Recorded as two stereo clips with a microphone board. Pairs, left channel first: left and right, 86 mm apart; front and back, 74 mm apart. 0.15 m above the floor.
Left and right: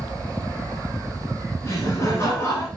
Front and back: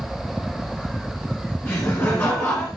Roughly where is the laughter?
Ahead left.